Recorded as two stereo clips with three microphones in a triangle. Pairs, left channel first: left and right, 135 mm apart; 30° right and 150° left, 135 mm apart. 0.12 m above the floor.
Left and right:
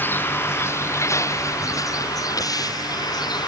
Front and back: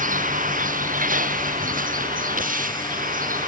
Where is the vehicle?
165° left; by 3.5 s 150° left.